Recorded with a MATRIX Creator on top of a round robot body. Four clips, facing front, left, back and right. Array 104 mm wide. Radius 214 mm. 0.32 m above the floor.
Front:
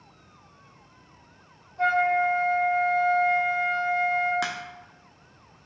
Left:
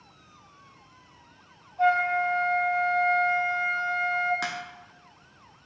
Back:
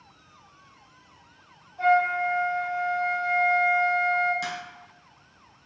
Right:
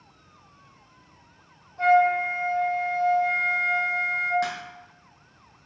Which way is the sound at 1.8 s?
60° right.